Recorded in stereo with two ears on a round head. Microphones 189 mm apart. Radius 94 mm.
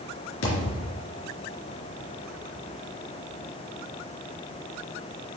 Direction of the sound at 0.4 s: 65° left (ahead or behind).